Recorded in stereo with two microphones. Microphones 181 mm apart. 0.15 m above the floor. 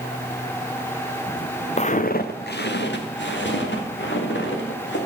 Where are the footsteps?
35° left (ahead or behind), 1.1 m; by 5.0 s 90° left, 4 m.